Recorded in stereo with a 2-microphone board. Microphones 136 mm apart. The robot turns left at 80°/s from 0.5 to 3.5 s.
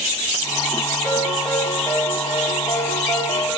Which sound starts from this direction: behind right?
A ringtone, at 1.0 s.